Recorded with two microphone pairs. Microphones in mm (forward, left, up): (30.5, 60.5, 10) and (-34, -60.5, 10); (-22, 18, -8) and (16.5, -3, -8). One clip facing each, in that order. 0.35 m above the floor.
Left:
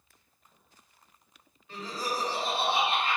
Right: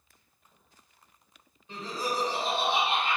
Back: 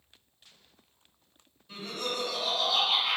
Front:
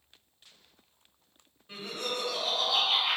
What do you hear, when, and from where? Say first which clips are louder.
1.7 s laughter: right 1 dB, back 1 dB; 65° right, 2.0 m